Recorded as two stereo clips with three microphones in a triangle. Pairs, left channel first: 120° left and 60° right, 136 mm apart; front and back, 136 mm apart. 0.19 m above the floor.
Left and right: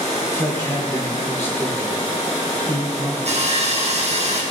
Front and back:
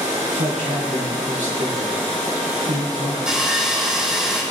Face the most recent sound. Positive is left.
turn(degrees=-95)